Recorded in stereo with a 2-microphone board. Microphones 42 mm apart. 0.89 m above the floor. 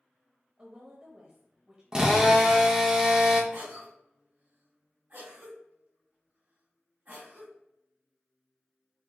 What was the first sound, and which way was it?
A woman speaking, 25° right (ahead or behind).